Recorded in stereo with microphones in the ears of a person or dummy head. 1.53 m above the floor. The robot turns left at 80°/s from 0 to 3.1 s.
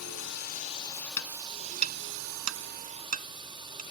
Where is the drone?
90° left; by 3.9 s 160° right.